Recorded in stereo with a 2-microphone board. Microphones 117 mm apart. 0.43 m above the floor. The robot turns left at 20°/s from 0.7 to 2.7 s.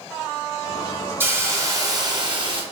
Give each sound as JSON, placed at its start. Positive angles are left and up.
{"t": 1.2, "sound": "a hiss", "side_deg": -20, "distance_m": 1.0}